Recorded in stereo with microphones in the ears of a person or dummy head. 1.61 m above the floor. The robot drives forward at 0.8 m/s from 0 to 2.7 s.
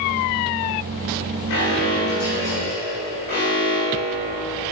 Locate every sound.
1.5 s an alarm: 50° left (ahead or behind), 2.5 m; by 4.7 s 40° left (ahead or behind), 3.5 m